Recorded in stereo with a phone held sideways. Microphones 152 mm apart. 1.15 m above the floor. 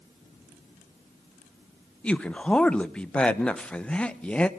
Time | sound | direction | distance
2.0 | a man speaking | 5° left (ahead or behind) | 0.9 m